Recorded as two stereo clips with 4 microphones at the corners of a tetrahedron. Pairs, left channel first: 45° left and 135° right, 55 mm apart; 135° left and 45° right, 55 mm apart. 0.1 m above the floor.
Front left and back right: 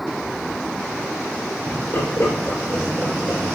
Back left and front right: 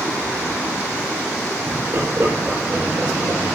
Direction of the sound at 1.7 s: 10° right.